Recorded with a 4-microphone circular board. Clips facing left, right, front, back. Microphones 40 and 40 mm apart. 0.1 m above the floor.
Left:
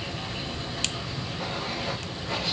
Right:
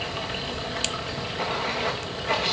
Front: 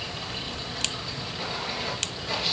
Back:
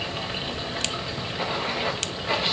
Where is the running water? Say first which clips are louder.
Right 4 dB, back 4 dB; 120° right, 3 m.